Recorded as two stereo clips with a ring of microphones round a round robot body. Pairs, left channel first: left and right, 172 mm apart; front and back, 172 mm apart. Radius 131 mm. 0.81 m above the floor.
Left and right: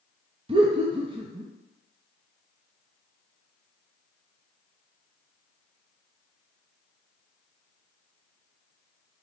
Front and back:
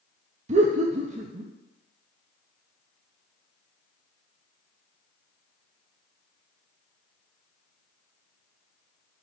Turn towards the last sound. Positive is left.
turn(degrees=-140)